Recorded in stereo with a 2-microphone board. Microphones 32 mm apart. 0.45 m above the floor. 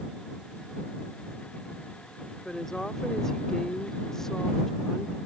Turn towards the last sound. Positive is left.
turn(degrees=15)  # may be behind; listen again after turning